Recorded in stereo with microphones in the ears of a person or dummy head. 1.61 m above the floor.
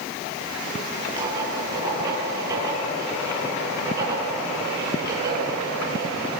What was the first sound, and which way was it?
Writing, 20° right (ahead or behind).